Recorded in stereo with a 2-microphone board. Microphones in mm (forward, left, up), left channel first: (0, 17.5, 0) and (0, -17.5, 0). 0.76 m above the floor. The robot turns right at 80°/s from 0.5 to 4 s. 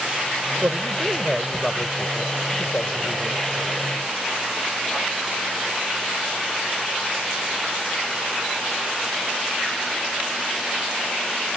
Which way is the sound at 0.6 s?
75° right.